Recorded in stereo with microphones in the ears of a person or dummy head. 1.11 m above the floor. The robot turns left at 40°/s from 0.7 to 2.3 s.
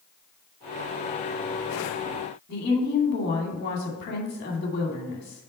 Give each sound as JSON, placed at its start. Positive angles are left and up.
{"t": 2.5, "sound": "a woman speaking", "side_deg": 45, "distance_m": 2.0}